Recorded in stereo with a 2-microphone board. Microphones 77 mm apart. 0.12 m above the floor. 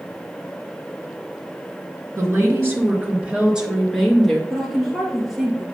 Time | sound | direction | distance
2.2 | a woman speaking | 40° right (ahead or behind) | 2 m
4.5 | a woman speaking | centre (ahead or behind) | 2 m